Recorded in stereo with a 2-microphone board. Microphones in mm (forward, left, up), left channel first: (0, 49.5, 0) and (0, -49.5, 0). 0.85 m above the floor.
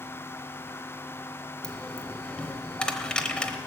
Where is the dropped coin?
10° left (ahead or behind), 0.8 m.